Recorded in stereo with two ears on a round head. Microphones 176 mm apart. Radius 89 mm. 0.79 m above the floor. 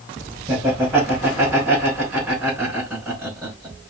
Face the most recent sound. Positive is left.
turn(degrees=-10)  # may be behind; listen again after turning